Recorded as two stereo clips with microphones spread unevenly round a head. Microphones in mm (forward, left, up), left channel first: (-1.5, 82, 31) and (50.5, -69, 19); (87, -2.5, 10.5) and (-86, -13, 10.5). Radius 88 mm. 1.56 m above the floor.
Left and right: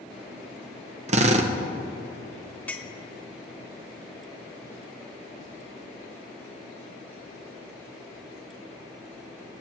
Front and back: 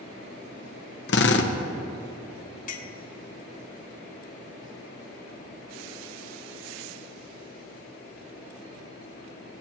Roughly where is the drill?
Ahead.